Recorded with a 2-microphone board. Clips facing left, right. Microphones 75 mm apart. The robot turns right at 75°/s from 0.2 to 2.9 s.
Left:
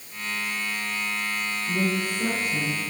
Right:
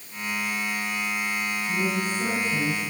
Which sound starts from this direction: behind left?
A woman speaking, at 1.7 s.